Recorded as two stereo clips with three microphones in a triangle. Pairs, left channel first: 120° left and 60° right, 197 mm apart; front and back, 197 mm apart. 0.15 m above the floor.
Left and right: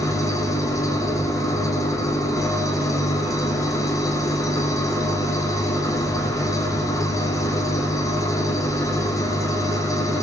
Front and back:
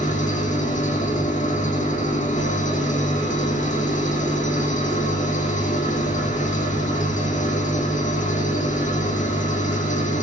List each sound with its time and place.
0.0 s an engine running: 45° left, 7 m